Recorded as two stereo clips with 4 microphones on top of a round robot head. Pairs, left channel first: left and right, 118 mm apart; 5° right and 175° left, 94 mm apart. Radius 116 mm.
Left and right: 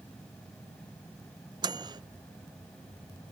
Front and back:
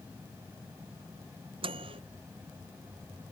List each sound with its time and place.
1.6 s a microwave: 145° right